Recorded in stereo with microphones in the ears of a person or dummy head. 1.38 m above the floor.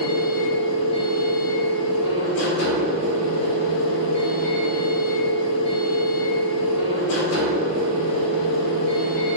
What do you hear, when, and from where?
0.0 s a machine running: 65° left (ahead or behind), 0.8 m